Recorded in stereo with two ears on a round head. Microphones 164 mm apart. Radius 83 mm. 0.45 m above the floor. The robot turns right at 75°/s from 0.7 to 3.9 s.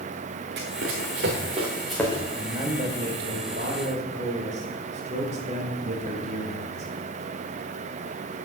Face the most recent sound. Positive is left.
turn(degrees=-50)